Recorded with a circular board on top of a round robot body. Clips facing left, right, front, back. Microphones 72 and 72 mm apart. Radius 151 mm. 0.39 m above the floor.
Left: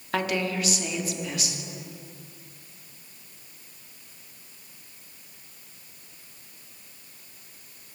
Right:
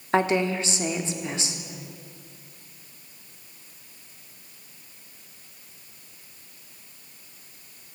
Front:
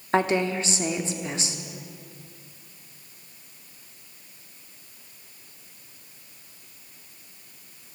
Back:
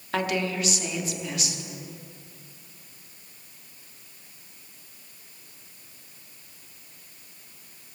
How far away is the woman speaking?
About 1.4 m.